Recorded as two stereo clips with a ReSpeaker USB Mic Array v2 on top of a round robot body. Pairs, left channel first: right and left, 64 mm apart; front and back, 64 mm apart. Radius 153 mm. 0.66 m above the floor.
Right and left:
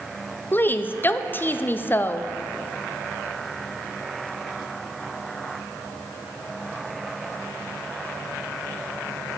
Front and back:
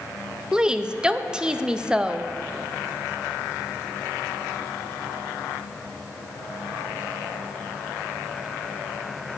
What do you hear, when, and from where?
0.5 s a woman speaking: 110° right, 0.6 m